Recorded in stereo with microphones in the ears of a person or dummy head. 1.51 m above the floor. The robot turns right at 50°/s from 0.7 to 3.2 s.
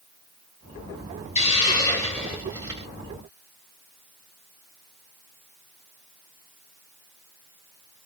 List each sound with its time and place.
1.4 s a hiss: 140° left, 1.4 m; by 2.9 s 140° right, 1.4 m